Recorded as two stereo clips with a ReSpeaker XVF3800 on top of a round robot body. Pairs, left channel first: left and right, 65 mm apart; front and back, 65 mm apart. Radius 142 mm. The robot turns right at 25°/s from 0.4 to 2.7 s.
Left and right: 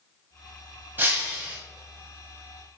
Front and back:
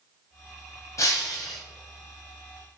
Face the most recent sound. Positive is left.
turn(degrees=10)